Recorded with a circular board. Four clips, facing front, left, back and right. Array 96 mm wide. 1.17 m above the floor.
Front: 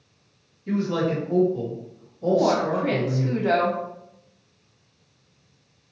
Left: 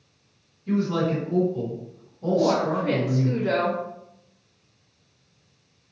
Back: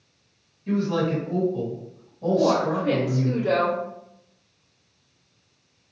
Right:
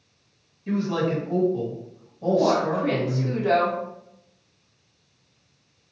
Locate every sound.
0.7 s a man speaking: 110° right, 1.8 m
2.3 s a woman speaking: 30° right, 1.1 m